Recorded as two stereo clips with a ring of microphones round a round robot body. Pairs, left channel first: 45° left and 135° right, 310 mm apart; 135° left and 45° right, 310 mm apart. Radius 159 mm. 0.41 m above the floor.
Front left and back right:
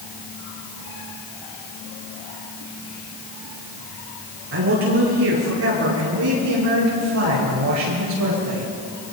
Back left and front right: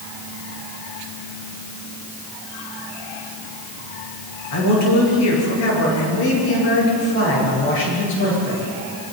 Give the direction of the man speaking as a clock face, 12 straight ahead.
6 o'clock.